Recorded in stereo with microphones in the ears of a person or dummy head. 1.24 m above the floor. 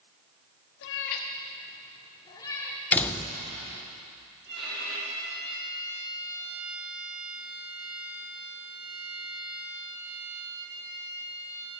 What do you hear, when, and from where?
0.8 s a cat meowing: 60° left (ahead or behind), 1.0 m; by 2.8 s 15° left (ahead or behind), 2 m
2.9 s a door slam: 10° left (ahead or behind), 0.6 m
4.5 s a violin: 55° right (ahead or behind), 5.5 m